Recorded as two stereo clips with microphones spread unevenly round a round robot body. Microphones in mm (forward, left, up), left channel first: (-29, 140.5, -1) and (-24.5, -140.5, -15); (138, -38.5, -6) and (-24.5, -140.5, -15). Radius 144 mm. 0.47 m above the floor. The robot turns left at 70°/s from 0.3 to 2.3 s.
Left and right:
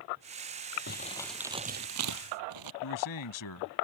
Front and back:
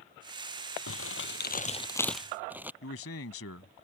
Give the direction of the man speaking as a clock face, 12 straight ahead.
10 o'clock.